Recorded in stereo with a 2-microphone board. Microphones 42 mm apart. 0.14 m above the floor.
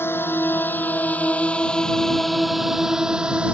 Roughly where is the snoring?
I don't hear snoring.